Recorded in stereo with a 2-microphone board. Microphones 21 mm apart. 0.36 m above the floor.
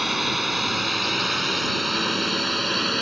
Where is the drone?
5° right (ahead or behind); by 3.0 s centre (ahead or behind).